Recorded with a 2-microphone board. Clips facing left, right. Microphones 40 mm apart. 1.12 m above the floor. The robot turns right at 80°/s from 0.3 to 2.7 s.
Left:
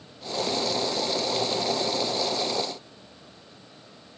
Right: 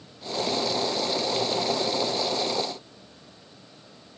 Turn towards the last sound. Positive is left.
No sound to turn to.